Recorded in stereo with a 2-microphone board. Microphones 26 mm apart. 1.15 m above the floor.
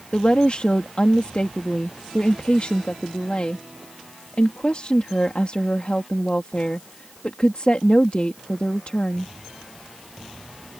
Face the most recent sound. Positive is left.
turn(degrees=45)  # may be behind; listen again after turning